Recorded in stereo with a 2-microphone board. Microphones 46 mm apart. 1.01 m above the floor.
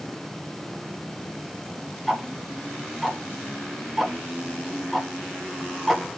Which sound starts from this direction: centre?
Ticking, at 2.1 s.